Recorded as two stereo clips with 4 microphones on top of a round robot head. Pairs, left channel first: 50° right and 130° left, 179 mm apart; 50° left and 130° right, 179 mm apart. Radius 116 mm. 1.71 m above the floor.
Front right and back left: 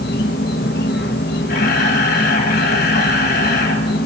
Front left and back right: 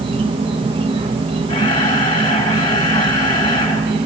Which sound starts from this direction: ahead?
A camera shutter, at 1.5 s.